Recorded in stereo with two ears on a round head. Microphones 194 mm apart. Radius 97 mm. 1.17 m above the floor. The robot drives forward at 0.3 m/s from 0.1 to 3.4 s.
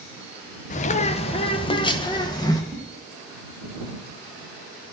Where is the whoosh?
15° left (ahead or behind), 3.5 m.